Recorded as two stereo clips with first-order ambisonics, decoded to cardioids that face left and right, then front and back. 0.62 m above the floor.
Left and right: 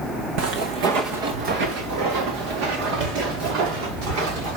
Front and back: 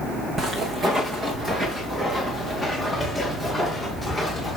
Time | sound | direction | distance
0.4 | footsteps | 110° right | 2.5 m